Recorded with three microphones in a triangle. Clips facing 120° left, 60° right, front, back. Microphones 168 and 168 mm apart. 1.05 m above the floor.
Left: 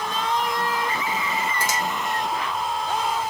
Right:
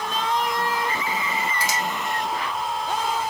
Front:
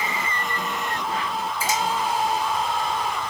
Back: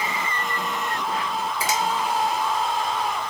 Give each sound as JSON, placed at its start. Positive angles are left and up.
{"t": 1.6, "sound": "a finger snap", "azimuth_deg": 160, "distance_m": 3.0}